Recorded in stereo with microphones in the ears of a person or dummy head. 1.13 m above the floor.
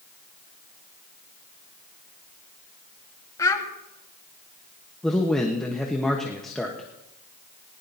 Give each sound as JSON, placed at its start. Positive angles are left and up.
{"t": 3.4, "sound": "a child speaking", "side_deg": 15, "distance_m": 1.5}
{"t": 5.0, "sound": "a man speaking", "side_deg": 5, "distance_m": 1.1}